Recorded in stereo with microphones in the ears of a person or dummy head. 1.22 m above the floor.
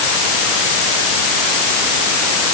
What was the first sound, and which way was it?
Only background noise.